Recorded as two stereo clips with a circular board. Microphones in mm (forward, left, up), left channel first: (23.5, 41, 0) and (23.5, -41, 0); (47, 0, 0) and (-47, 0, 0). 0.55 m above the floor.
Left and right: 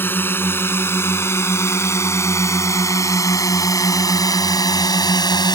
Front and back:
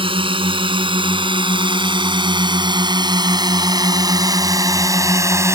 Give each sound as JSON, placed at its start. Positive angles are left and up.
{"t": 0.0, "sound": "a drone", "azimuth_deg": 155}